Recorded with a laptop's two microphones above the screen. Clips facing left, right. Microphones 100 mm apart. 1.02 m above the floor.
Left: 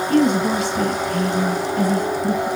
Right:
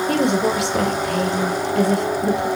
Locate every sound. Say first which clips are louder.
0.1 s a woman speaking: left 3 dB; 70° right (ahead or behind), 3.5 m